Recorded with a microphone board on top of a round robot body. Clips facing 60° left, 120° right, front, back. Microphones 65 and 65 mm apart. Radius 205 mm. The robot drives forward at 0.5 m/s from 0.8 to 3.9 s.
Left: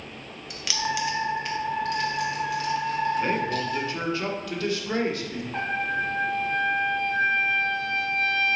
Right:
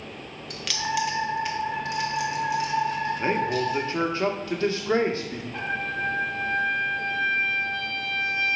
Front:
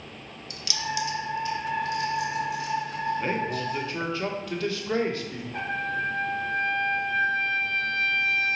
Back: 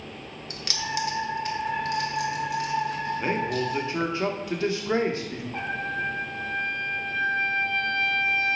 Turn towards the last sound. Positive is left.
turn(degrees=120)